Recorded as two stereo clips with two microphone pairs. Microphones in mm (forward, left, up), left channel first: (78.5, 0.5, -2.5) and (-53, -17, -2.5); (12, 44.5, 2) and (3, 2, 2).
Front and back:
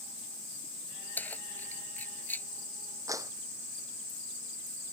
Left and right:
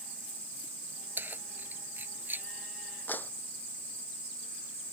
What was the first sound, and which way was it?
Keys jangling, 65° right.